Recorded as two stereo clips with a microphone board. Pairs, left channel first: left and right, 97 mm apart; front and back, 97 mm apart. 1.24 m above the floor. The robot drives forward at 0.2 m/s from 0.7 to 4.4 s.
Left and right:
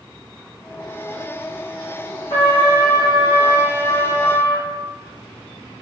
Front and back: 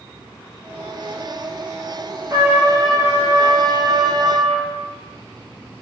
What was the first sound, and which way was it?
A trumpet, 120° left.